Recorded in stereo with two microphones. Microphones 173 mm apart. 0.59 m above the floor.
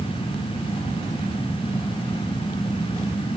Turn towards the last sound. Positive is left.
No sound to turn to.